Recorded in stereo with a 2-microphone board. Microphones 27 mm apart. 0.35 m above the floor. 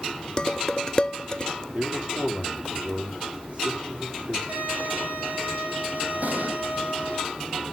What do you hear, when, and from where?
0.4 s dishes clattering: 25° left (ahead or behind), 0.6 m
1.7 s a man speaking: 35° right (ahead or behind), 7 m
4.5 s a violin: 80° right, 7 m
6.2 s an explosion: 60° right (ahead or behind), 3.5 m